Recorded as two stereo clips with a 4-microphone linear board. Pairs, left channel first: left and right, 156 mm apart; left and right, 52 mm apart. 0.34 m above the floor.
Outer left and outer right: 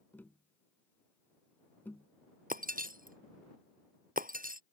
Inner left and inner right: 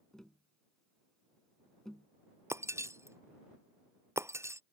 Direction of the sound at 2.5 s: 65° right (ahead or behind).